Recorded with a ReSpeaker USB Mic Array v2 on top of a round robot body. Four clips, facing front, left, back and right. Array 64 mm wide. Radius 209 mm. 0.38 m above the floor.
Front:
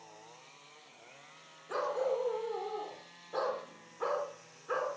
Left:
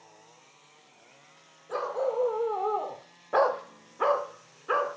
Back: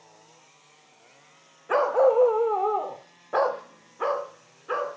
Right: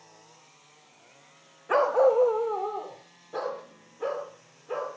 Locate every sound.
1.7 s a dog barking: 135° right, 0.8 m; by 5.0 s 110° left, 1.8 m